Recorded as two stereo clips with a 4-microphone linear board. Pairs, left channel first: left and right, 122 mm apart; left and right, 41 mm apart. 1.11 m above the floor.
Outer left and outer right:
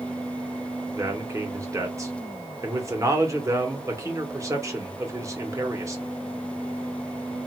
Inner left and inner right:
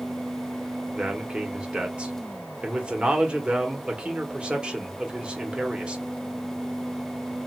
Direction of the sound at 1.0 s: 25° right (ahead or behind).